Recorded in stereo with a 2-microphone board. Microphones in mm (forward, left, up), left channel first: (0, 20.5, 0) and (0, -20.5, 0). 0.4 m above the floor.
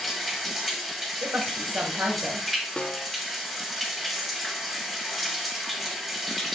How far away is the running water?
About 1.2 m.